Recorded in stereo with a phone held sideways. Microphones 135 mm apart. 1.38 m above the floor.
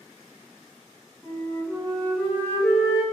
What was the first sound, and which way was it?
A flute, 15° left (ahead or behind).